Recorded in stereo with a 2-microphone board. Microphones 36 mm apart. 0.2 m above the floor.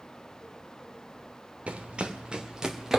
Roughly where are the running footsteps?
Right.